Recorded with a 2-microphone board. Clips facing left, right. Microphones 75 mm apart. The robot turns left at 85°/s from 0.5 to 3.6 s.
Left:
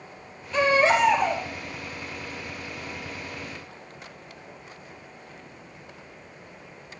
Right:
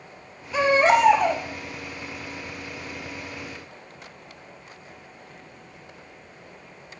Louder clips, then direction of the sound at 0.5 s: Right 2 dB; 10° right.